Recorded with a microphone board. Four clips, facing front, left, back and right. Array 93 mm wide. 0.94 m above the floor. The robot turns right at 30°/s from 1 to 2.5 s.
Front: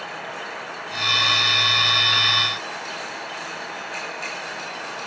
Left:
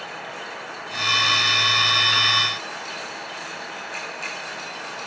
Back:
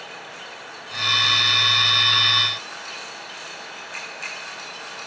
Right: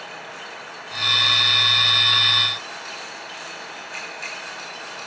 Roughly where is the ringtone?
I don't hear a ringtone.